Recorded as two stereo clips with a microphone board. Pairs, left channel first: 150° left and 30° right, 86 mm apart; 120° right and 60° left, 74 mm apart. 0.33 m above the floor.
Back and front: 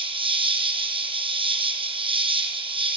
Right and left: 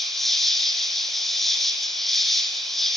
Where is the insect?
35° right, 1.7 m.